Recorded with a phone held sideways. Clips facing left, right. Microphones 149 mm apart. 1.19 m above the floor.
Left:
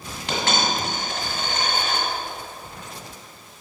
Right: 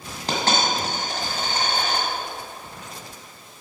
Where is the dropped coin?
40° right (ahead or behind), 1.8 m.